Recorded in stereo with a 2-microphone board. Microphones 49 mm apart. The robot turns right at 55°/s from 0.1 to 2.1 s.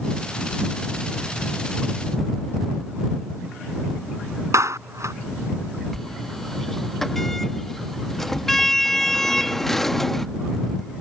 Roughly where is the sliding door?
Centre.